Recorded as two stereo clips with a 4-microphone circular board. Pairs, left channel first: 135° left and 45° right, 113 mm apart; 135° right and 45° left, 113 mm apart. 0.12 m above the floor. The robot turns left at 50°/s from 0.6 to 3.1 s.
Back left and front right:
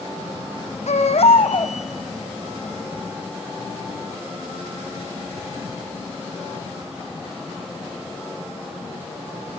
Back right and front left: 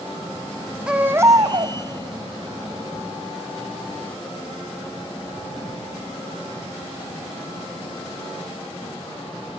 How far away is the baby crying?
About 1.9 m.